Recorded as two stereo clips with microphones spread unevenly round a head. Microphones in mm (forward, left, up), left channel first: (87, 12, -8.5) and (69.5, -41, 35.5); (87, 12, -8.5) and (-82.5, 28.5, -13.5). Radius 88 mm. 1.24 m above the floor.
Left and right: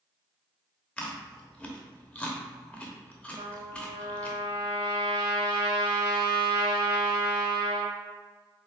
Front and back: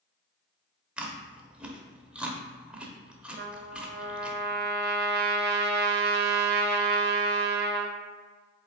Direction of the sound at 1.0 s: 105° right.